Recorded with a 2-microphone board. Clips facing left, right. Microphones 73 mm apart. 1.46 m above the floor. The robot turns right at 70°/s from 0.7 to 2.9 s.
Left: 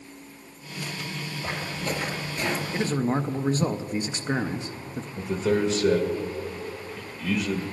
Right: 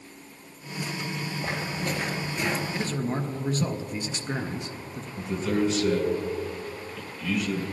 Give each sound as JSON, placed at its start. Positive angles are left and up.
{"t": 1.4, "sound": "footsteps", "side_deg": -35, "distance_m": 1.9}
{"t": 2.7, "sound": "a man speaking", "side_deg": 20, "distance_m": 0.6}
{"t": 5.2, "sound": "a man speaking", "side_deg": 40, "distance_m": 1.7}